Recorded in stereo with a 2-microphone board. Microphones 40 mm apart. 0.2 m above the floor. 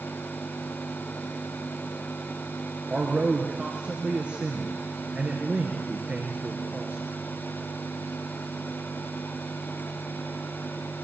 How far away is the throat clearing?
I don't hear throat clearing.